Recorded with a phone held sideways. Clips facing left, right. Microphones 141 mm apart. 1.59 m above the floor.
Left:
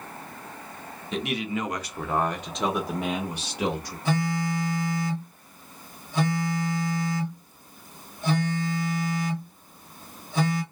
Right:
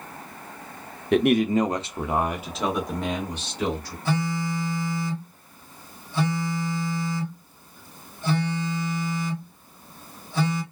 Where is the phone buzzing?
20° left (ahead or behind), 1.9 m.